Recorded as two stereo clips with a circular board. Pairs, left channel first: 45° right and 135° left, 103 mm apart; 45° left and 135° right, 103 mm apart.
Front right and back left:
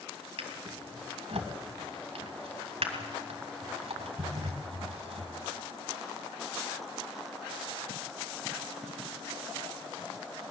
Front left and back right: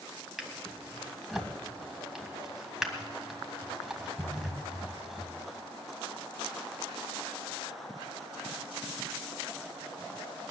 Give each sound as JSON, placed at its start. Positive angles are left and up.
{"t": 0.4, "sound": "a drawer", "azimuth_deg": 140, "distance_m": 1.8}